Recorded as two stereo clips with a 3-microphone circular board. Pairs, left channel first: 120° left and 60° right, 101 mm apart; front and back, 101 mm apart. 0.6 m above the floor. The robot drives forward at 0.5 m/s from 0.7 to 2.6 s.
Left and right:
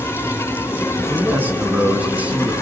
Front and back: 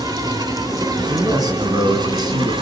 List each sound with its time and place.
0.0 s an insect: 170° left, 2.5 m; by 2.6 s 175° left, 3 m
1.1 s a man speaking: 130° right, 5 m; by 2.5 s 135° right, 5.5 m